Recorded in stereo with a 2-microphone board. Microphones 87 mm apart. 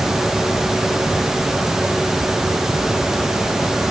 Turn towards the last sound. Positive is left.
No sound to turn to.